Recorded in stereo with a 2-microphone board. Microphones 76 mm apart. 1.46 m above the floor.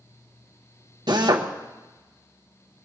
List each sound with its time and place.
1.1 s a drill: 60° right (ahead or behind), 1.4 m